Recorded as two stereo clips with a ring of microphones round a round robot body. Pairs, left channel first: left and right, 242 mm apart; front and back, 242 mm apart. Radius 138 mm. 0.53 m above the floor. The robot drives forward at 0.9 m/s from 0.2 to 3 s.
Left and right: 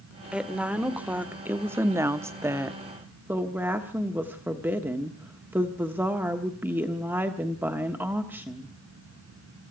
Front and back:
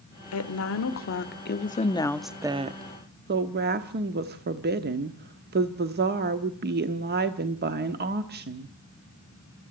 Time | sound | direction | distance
0.3 | a woman speaking | 5° right | 1.9 m